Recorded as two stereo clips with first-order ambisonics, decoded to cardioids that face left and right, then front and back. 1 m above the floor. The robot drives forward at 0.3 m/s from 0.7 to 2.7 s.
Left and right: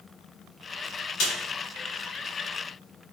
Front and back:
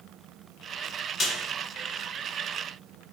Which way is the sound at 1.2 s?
70° left.